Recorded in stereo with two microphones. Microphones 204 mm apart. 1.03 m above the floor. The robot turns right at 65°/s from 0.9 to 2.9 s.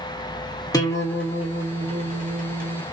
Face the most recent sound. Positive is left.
turn(degrees=-75)